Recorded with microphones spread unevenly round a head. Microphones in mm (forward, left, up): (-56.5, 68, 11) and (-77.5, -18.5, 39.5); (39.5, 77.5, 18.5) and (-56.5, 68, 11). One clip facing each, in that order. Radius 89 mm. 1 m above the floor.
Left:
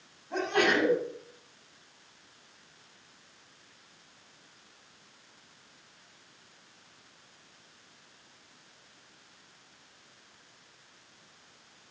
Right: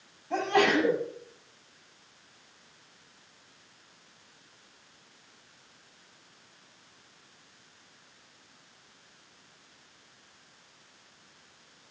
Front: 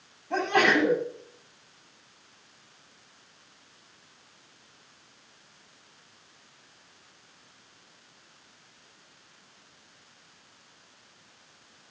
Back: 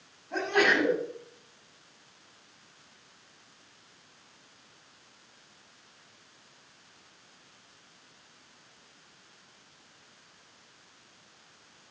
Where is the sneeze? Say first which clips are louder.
Right 2 dB, front 3 dB; 50° right, 8.5 m.